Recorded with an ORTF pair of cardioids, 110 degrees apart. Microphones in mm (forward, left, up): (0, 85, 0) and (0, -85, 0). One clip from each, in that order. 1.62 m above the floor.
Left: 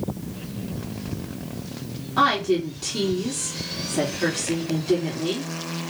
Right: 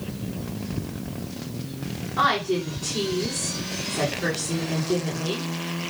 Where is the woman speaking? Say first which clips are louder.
Left 2 dB; 70° left, 4.5 m.